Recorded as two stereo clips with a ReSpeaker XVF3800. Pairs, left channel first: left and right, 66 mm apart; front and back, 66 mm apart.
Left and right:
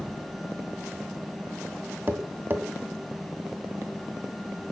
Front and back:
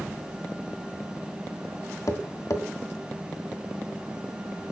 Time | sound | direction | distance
2.1 | tapping | 35° right | 2.0 m